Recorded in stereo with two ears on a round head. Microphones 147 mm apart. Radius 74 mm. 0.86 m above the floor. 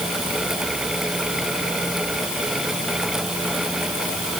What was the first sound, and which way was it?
Only background noise.